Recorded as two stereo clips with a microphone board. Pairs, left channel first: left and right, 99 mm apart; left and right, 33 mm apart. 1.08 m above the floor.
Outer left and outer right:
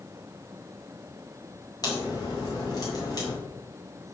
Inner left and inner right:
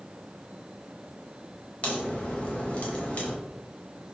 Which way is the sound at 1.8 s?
40° left (ahead or behind).